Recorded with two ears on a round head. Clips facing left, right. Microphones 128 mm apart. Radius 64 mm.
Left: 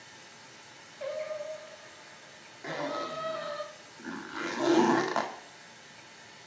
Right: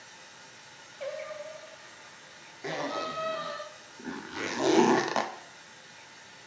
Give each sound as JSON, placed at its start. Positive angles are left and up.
{"t": 0.0, "sound": "running water", "side_deg": 5, "distance_m": 2.0}
{"t": 1.0, "sound": "singing", "side_deg": -25, "distance_m": 1.0}
{"t": 2.6, "sound": "a zipper", "side_deg": -20, "distance_m": 0.5}